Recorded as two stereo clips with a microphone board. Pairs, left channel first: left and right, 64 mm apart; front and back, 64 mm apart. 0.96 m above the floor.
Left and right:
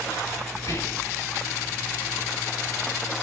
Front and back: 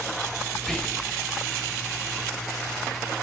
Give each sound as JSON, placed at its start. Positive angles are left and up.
{"t": 0.6, "sound": "whispering", "azimuth_deg": 80, "distance_m": 0.8}